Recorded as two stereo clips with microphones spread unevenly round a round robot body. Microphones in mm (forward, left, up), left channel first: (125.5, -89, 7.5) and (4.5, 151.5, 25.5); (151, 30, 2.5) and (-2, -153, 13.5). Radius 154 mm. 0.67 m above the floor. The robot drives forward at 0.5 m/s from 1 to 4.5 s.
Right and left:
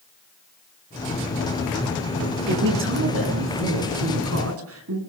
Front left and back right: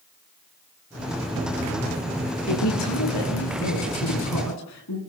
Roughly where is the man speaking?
Left.